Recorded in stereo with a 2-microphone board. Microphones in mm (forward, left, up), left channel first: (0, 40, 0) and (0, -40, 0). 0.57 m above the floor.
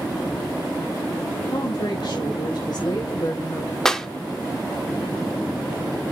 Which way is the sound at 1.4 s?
70° left (ahead or behind).